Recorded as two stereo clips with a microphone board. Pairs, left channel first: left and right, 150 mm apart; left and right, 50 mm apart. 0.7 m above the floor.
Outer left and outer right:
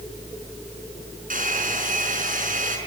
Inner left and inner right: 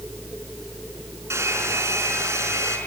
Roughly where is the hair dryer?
Right.